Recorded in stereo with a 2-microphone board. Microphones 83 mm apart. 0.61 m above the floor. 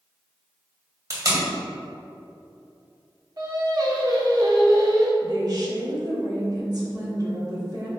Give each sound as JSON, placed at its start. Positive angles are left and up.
{"t": 1.1, "sound": "tape being pulled", "side_deg": -45, "distance_m": 1.9}
{"t": 3.4, "sound": "singing", "side_deg": -50, "distance_m": 1.0}
{"t": 5.2, "sound": "a woman speaking", "side_deg": -50, "distance_m": 1.8}